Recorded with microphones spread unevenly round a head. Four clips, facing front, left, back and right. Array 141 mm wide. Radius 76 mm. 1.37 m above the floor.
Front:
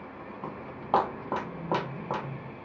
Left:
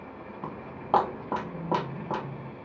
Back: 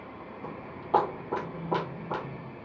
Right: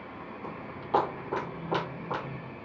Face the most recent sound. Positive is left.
turn(degrees=25)